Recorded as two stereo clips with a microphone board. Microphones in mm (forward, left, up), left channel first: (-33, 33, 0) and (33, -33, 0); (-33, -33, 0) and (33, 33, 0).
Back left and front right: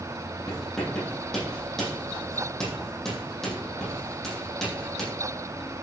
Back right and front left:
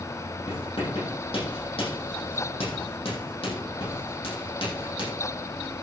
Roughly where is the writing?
Behind right.